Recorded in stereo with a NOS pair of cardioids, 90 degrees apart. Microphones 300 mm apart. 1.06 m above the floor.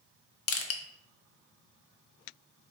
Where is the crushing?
50° left, 0.6 m.